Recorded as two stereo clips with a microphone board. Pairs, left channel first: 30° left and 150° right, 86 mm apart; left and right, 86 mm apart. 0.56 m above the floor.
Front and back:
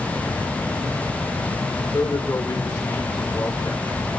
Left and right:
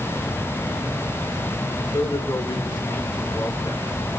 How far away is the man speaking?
About 2.0 m.